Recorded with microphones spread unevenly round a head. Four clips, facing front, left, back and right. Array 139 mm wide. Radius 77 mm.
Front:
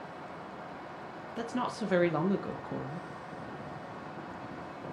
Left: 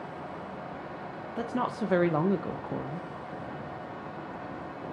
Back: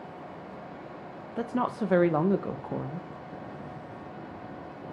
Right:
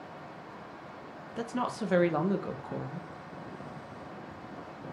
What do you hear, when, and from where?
1.4 s a woman speaking: 160° left, 0.7 m